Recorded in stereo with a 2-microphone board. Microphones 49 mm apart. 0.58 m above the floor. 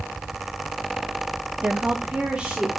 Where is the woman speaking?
25° right (ahead or behind), 0.6 m; by 2.8 s 15° right (ahead or behind), 1.2 m.